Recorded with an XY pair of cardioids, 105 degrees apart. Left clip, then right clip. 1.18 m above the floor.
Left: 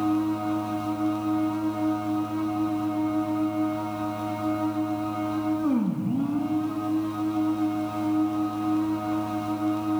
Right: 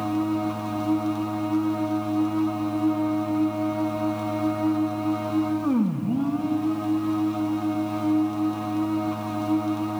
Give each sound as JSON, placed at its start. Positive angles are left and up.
{"t": 0.0, "sound": "a machine running", "azimuth_deg": -25, "distance_m": 2.0}